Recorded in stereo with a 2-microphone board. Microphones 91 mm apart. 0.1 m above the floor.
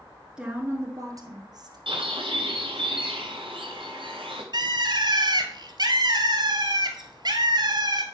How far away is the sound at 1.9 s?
About 2.5 m.